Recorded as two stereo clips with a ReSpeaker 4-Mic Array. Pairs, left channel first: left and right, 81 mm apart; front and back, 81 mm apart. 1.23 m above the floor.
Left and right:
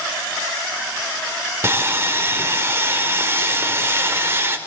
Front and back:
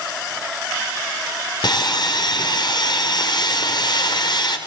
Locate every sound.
1.6 s sawing: 30° right, 3.5 m